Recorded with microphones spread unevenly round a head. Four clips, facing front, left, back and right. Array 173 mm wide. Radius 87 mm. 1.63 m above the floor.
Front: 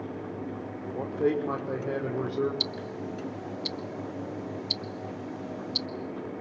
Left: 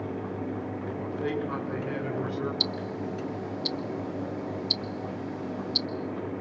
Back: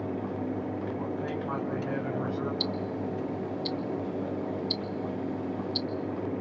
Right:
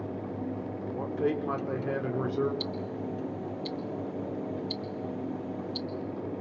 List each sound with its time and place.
0.9 s a man speaking: 35° right, 5.5 m; by 2.5 s 55° right, 5.5 m
2.6 s ticking: 55° left, 0.9 m